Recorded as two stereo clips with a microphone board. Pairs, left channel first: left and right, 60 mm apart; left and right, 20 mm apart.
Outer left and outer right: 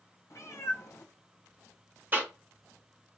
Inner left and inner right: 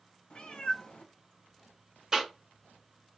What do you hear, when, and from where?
0.3 s a cat meowing: 65° left (ahead or behind), 1.0 m
2.1 s a cough: 35° right (ahead or behind), 1.3 m